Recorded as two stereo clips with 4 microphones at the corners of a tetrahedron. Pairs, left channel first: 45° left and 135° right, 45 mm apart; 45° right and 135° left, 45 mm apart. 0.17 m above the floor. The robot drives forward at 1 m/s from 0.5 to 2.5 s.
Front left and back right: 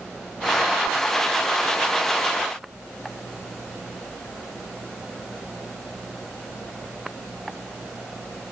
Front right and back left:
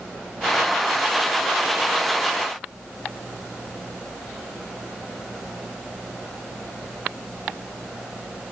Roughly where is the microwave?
I don't hear a microwave.